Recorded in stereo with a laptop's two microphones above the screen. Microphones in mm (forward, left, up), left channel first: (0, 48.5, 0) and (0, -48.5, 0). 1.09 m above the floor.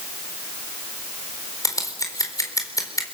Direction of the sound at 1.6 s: 35° left (ahead or behind).